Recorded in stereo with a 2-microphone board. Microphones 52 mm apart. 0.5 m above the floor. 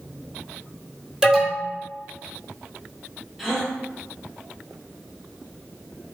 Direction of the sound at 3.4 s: 5° right (ahead or behind).